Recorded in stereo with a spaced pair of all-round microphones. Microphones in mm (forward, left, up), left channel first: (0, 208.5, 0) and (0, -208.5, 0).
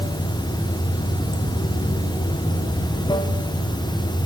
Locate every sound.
0.0 s running water: 10° left (ahead or behind), 0.7 m